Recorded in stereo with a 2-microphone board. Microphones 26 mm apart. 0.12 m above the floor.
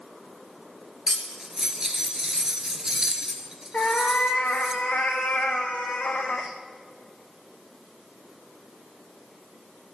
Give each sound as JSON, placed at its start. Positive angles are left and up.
{"t": 1.1, "sound": "cutlery clinking", "side_deg": -20, "distance_m": 1.1}
{"t": 3.7, "sound": "a cat meowing", "side_deg": 75, "distance_m": 1.3}